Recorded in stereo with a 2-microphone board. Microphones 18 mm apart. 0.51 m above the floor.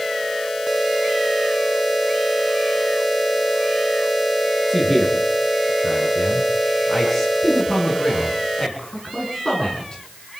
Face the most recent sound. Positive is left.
turn(degrees=45)  # may be behind; listen again after turning